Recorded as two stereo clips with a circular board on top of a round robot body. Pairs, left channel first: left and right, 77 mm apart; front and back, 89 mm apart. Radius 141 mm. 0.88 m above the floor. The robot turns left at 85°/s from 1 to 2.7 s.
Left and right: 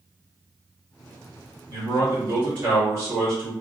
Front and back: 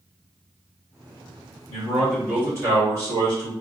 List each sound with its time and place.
1.7 s a man speaking: 50° right, 1.9 m; by 3.5 s 135° right, 1.9 m